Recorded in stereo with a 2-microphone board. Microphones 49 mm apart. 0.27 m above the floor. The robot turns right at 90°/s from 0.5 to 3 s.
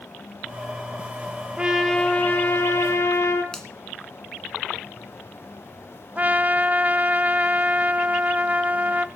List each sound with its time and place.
1.6 s a trumpet: 20° right, 3.5 m; by 3.4 s 110° left, 3.5 m
3.5 s a finger snap: 10° left (ahead or behind), 2.5 m
6.2 s a trumpet: 35° right (ahead or behind), 0.8 m